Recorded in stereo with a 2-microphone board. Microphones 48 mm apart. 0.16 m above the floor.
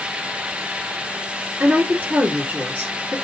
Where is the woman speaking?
25° right (ahead or behind), 1.4 m.